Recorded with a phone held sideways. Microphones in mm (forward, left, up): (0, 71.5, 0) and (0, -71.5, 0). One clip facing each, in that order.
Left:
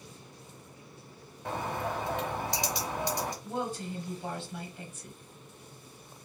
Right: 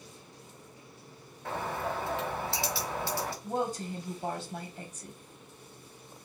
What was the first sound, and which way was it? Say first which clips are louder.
A bird: even; 15° left (ahead or behind).